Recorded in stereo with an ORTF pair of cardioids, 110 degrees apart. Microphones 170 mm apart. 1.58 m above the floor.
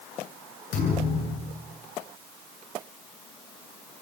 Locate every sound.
0.7 s a thud: 65° left, 10 m